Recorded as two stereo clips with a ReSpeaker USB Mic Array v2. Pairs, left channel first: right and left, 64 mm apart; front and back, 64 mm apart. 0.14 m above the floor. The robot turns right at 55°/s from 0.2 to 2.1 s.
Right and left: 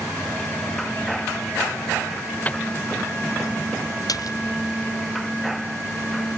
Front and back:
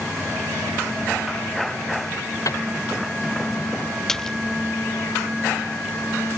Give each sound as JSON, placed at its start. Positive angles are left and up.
{"t": 2.5, "sound": "a microwave", "azimuth_deg": -25}
{"t": 4.1, "sound": "a splash", "azimuth_deg": -80}